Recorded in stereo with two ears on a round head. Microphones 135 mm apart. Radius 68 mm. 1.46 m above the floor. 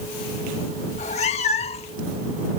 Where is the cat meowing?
50° left (ahead or behind); by 2.0 s 40° left (ahead or behind).